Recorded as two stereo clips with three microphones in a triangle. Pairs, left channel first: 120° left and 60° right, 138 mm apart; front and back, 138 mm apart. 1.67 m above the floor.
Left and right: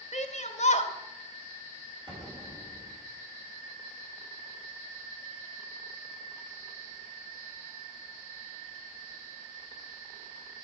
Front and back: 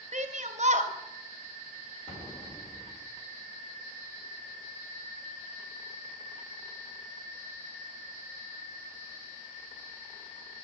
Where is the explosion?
15° right, 1.9 m.